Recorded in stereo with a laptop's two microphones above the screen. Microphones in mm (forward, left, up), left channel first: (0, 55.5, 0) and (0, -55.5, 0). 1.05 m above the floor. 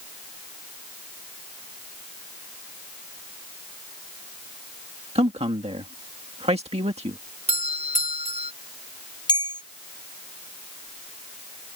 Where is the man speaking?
65° right (ahead or behind).